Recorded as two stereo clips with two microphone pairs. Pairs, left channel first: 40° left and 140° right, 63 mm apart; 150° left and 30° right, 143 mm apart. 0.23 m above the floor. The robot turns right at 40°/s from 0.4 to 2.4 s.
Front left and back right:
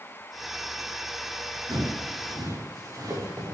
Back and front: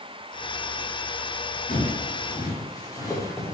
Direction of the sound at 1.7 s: 175° right.